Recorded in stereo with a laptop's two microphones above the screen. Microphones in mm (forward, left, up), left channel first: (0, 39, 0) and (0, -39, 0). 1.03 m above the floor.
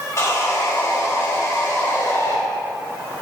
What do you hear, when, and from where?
0.2 s sawing: 40° left (ahead or behind), 1.8 m